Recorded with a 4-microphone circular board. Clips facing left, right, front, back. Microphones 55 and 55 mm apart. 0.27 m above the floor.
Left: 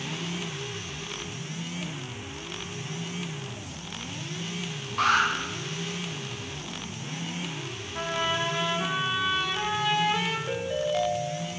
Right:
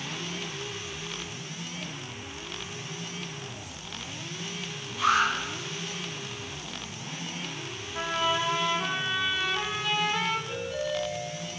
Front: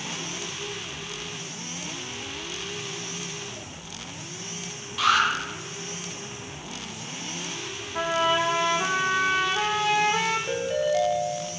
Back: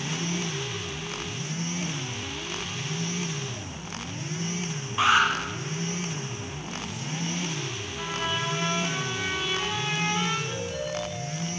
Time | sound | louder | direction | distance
5.0 | an alarm | left 1 dB, back 1 dB | 120° left | 8.5 m
8.0 | a trumpet | right 1 dB, front 8 dB | straight ahead | 5 m
10.5 | a ringtone | left 3 dB, front 7 dB | 45° left | 10 m